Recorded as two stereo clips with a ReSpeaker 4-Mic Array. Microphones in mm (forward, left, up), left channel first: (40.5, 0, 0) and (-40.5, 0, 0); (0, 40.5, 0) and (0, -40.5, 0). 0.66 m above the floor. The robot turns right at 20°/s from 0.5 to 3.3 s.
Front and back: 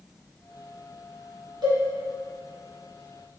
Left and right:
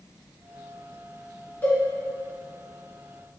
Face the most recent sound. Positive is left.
turn(degrees=-175)